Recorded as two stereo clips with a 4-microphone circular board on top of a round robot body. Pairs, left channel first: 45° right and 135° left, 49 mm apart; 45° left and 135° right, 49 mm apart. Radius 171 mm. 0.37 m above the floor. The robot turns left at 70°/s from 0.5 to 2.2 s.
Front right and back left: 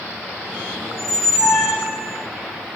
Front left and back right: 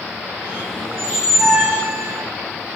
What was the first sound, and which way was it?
A squeak, 25° right.